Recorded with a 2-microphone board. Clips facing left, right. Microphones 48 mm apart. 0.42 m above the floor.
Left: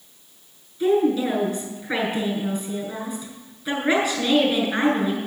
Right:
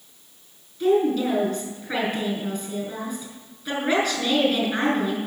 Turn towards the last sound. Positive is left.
turn(degrees=5)  # may be behind; listen again after turning